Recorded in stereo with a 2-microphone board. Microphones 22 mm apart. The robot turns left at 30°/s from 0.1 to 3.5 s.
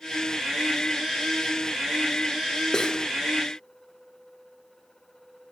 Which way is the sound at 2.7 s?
30° left (ahead or behind).